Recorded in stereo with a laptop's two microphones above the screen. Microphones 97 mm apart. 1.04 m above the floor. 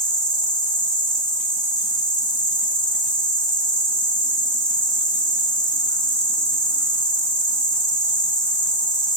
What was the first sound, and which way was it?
An insect, 50° left (ahead or behind).